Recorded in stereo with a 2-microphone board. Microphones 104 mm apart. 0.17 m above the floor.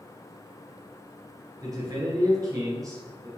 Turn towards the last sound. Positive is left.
turn(degrees=-35)  # may be behind; listen again after turning